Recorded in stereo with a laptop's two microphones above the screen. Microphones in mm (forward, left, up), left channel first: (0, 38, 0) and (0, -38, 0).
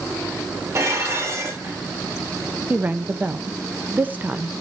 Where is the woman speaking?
25° right (ahead or behind), 0.7 m.